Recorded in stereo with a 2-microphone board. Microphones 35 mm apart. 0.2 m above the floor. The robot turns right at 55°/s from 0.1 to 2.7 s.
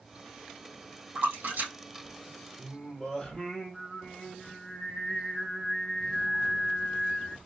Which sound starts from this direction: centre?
Singing, at 2.6 s.